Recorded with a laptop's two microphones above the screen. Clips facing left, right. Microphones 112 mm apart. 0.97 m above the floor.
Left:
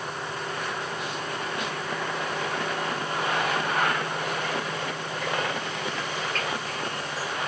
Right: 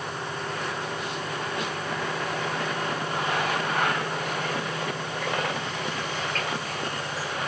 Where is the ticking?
I don't hear ticking.